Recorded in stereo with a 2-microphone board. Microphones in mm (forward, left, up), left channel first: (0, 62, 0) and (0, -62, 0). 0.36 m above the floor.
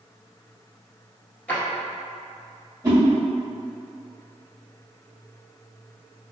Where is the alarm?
I don't hear an alarm.